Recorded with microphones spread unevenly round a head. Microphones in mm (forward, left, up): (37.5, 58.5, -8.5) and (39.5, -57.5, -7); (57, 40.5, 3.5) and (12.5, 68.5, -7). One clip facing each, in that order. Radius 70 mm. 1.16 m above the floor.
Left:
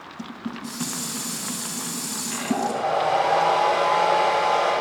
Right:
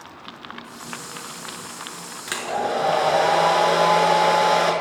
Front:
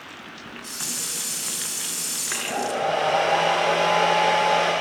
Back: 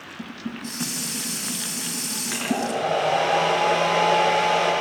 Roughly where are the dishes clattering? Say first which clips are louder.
Left 9 dB, back 5 dB; left.